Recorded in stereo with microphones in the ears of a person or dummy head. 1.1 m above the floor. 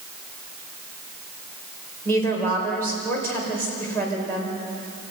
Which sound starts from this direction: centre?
A woman speaking, at 2.0 s.